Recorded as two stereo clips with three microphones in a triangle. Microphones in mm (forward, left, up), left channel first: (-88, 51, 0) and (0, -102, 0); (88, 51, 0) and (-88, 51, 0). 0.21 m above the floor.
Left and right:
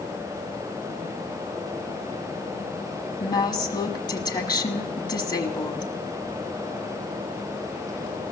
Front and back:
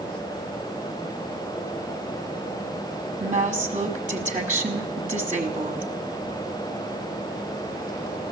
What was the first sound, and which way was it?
A woman speaking, 175° left.